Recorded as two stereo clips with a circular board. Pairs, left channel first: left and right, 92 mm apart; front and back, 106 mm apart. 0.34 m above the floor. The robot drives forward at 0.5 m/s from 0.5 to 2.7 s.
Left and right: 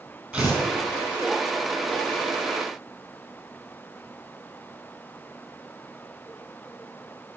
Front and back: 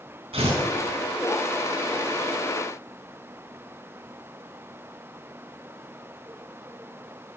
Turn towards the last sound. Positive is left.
turn(degrees=-165)